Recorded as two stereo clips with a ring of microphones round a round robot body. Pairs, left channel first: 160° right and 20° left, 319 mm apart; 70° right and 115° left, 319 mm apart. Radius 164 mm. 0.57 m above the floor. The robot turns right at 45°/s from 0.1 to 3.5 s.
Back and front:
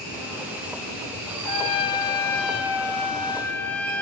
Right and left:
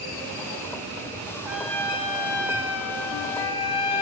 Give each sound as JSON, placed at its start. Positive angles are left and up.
{"t": 1.4, "sound": "a trumpet", "azimuth_deg": -165, "distance_m": 1.4}